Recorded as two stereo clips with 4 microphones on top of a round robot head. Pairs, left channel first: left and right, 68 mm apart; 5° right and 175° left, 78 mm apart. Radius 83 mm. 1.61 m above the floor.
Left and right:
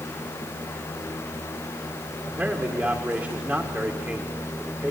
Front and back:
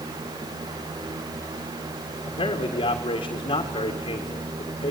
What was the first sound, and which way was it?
A man speaking, 15° right.